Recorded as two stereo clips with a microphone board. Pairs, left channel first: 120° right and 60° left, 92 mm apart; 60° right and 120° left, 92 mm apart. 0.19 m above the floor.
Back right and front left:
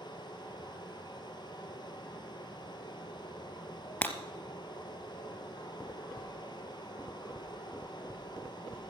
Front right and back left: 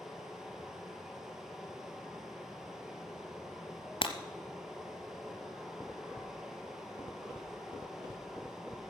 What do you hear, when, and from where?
0.0 s running water: 155° right, 2.0 m
4.0 s breaking glass: 50° right, 1.1 m